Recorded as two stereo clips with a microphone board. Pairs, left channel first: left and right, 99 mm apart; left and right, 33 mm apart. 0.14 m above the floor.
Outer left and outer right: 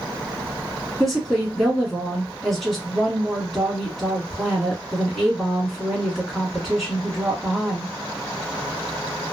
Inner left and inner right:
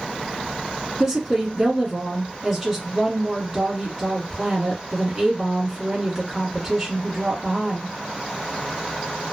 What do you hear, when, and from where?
1.0 s a woman speaking: centre (ahead or behind), 1.3 m